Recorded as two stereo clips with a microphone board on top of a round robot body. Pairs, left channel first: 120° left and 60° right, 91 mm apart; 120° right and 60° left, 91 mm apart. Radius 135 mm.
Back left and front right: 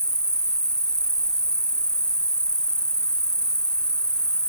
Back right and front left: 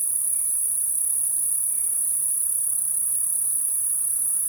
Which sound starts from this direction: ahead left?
An insect, at 0.0 s.